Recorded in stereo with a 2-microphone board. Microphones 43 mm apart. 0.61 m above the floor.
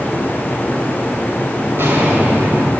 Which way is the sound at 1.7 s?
55° right (ahead or behind).